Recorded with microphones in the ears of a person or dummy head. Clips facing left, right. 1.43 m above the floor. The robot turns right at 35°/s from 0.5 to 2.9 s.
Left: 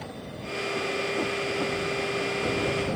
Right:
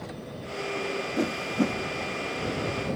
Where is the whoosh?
25° right (ahead or behind); by 1.8 s 45° right (ahead or behind).